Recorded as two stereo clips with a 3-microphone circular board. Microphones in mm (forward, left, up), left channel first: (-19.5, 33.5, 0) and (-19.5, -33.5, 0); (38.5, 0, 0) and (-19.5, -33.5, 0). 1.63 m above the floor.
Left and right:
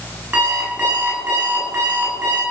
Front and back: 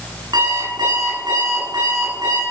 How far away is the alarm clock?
About 10 m.